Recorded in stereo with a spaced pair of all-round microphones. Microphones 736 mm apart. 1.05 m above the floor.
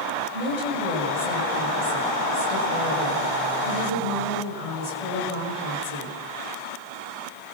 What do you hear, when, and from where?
0.3 s a woman speaking: 50° right (ahead or behind), 7 m